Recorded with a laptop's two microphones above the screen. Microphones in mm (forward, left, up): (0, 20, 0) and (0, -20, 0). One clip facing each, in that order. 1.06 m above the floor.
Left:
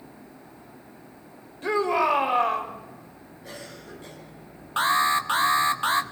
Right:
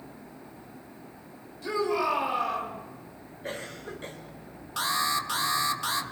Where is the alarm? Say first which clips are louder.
Left 6 dB; 35° left (ahead or behind), 1.1 m.